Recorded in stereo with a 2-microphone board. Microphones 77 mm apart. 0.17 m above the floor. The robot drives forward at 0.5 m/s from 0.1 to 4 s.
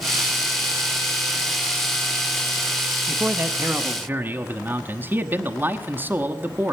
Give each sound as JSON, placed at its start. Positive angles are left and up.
{"t": 3.1, "sound": "a man speaking", "side_deg": -30, "distance_m": 1.1}